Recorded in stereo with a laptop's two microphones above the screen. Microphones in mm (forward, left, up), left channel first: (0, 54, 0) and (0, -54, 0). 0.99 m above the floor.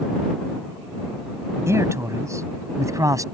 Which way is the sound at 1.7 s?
25° right (ahead or behind).